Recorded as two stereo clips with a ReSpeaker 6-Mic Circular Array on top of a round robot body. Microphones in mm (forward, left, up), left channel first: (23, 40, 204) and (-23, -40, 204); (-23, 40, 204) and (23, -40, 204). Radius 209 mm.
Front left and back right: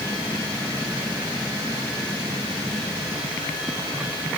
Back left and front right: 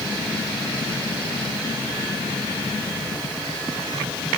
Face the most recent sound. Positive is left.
No sound to turn to.